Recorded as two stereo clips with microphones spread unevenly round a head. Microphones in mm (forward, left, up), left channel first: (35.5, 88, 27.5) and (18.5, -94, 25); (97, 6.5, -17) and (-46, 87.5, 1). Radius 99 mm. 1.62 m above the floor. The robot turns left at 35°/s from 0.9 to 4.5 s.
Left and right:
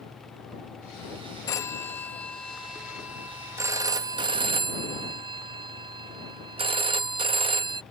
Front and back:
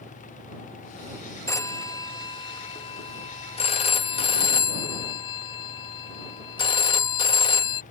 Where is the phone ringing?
35° left; by 7.8 s 70° right.